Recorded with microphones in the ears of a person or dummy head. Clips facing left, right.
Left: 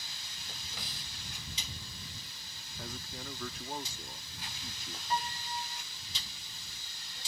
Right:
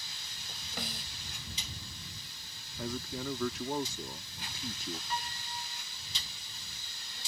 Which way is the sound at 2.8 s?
65° right (ahead or behind).